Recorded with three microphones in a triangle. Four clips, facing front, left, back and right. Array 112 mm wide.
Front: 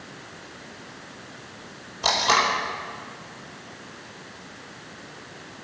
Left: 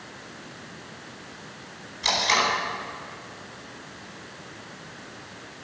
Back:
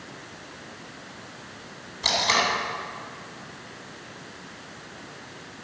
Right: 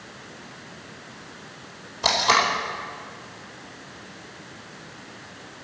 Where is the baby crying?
No baby crying in this recording.